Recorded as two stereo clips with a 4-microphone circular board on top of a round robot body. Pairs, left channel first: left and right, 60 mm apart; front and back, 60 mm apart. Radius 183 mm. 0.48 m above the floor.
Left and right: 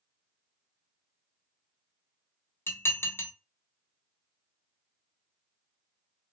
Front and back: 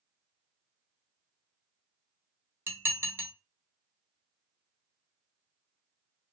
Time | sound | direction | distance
2.7 | dishes clattering | 135° left | 1.1 m